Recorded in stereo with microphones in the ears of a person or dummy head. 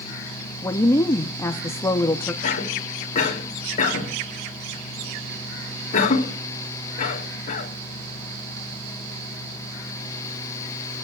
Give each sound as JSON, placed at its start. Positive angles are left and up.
{"t": 0.6, "sound": "a woman speaking", "side_deg": 15, "distance_m": 0.8}
{"t": 2.4, "sound": "a cough", "side_deg": 45, "distance_m": 3.0}